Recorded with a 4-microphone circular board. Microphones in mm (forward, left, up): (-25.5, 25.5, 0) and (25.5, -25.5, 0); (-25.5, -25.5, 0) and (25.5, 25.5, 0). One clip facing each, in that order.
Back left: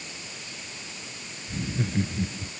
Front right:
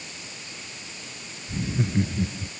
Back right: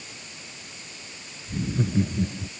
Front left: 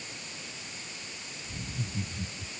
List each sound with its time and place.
1.5 s laughter: 130° right